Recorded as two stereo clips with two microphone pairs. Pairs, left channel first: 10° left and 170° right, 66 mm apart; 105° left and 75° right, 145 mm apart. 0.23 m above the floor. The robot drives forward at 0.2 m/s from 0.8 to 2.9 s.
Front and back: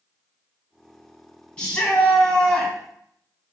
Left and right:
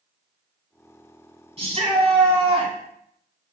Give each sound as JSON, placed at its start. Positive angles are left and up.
{"t": 1.6, "sound": "a shout", "azimuth_deg": -60, "distance_m": 1.4}